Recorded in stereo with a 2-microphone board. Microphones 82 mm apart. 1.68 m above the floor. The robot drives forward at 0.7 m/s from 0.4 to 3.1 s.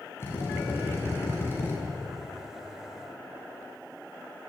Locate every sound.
0.2 s a drill: 30° left (ahead or behind), 6.5 m